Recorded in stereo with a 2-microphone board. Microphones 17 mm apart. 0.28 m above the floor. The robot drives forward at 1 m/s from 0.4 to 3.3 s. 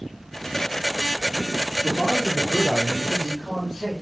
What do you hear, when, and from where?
1.8 s a man speaking: 60° left (ahead or behind), 4.5 m; by 3.9 s 45° left (ahead or behind), 5.5 m